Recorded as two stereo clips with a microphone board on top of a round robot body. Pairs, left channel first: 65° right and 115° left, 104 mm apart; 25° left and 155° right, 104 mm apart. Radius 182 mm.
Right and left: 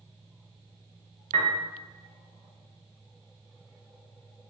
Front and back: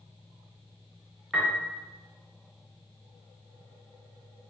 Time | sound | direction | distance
1.3 | a piano | 115° left | 0.6 m